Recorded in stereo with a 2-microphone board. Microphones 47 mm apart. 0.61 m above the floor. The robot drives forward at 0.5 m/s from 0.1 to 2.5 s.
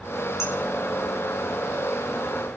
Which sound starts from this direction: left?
Dishes clattering, at 0.4 s.